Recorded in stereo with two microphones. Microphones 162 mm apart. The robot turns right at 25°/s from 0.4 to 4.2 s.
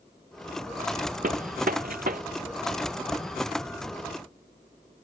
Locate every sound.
1.2 s a gunshot: 60° right (ahead or behind); by 2.2 s 65° right (ahead or behind)